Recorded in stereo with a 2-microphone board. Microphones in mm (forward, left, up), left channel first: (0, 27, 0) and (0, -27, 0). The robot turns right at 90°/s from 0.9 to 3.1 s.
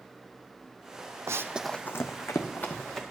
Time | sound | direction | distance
1.3 | running footsteps | 75° right (ahead or behind) | 0.7 m